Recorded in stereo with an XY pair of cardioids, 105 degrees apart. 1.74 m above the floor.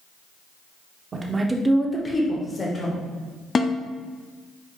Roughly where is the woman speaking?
Ahead right.